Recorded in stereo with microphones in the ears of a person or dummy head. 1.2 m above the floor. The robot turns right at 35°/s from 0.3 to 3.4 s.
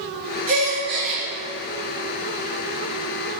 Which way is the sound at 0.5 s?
45° right (ahead or behind).